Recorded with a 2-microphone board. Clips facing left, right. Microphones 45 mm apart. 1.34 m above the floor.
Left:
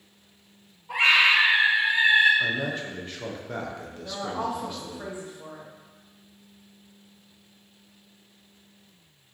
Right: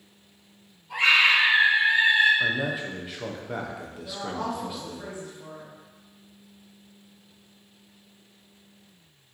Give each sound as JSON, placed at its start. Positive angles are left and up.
{"t": 0.9, "sound": "a scream", "side_deg": 75, "distance_m": 1.2}
{"t": 2.4, "sound": "a man speaking", "side_deg": -5, "distance_m": 0.6}
{"t": 4.0, "sound": "a woman speaking", "side_deg": 25, "distance_m": 1.1}